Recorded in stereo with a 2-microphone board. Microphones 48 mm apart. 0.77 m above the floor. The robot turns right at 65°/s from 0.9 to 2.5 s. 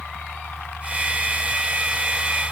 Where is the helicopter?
130° left; by 2.5 s 130° right.